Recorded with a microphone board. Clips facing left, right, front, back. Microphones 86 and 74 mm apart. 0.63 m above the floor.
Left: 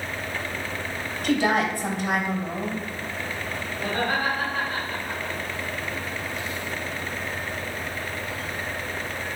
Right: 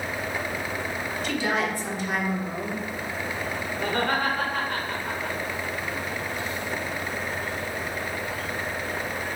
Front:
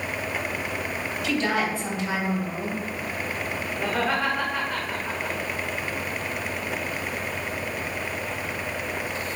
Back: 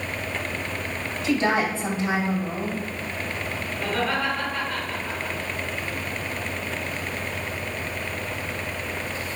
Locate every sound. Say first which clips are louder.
1.2 s a woman speaking: left 5 dB, back 3 dB; 125° left, 3 m
3.8 s laughter: even, even; 75° right, 2.5 m